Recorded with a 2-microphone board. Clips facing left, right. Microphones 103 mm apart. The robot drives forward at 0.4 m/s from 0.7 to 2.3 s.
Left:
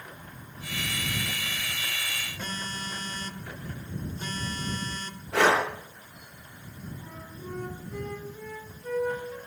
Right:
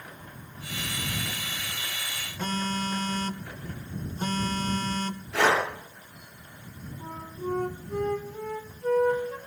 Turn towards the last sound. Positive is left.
turn(degrees=-55)  # may be behind; listen again after turning